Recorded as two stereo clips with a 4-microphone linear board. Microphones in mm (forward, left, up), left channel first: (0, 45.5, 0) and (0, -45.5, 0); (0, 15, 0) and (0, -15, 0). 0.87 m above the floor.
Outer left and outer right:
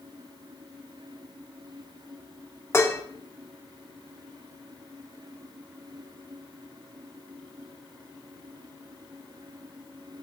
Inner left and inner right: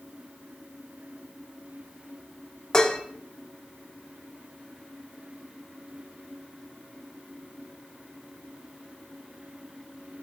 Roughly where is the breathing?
I don't hear breathing.